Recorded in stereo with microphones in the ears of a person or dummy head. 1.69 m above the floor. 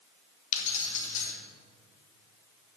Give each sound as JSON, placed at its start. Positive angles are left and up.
{"t": 0.5, "sound": "keys jangling", "side_deg": 45, "distance_m": 1.0}